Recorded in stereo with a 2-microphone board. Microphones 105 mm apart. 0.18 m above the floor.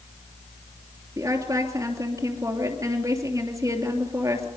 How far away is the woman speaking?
About 3 m.